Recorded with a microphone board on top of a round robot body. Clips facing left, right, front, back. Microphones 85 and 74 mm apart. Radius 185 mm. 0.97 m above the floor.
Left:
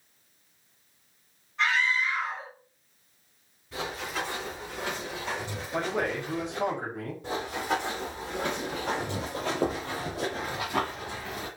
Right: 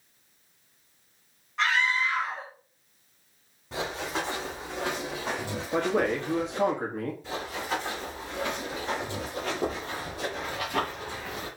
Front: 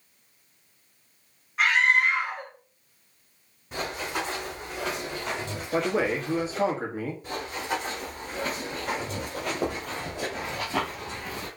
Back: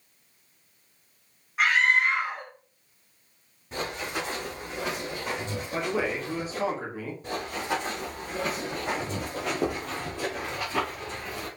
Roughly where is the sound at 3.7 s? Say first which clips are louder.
Right 2 dB, front 1 dB; right.